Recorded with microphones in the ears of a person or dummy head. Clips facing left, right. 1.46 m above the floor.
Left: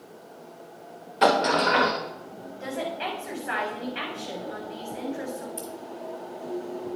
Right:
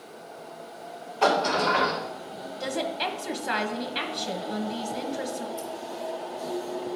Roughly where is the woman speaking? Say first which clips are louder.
Right 1 dB; right.